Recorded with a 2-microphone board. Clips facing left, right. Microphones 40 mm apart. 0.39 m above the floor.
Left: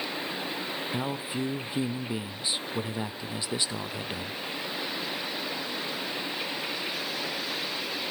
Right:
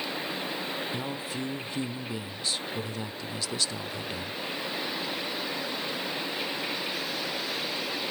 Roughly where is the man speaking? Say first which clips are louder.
Left 2 dB; centre.